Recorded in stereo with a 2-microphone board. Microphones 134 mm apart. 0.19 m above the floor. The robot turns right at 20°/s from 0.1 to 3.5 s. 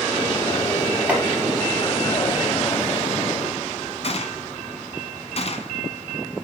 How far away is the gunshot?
About 1.6 m.